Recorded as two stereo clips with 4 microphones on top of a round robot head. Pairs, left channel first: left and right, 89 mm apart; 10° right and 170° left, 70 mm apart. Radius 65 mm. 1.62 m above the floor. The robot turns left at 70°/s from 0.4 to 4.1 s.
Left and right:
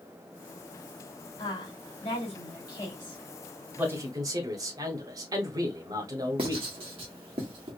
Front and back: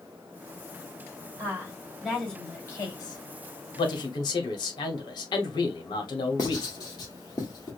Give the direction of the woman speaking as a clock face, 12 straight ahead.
8 o'clock.